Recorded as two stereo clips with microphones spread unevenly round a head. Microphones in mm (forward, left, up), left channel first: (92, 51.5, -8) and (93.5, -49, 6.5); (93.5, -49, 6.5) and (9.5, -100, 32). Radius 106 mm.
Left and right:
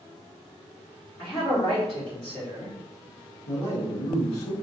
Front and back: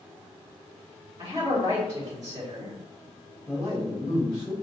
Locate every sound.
1.2 s a man speaking: 150° left, 1.3 m
3.5 s a man speaking: 105° left, 1.7 m